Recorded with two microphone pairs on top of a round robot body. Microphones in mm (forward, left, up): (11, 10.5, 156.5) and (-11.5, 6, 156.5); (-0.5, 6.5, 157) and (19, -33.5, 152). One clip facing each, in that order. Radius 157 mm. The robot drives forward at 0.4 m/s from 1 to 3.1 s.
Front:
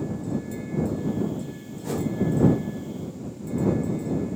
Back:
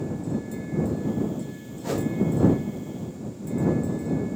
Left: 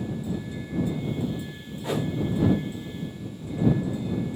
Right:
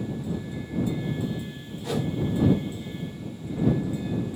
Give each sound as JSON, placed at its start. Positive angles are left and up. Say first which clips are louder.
{"t": 1.8, "sound": "a whoosh", "louder": "back 1 dB, left 1 dB", "azimuth_deg": 165, "distance_m": 1.1}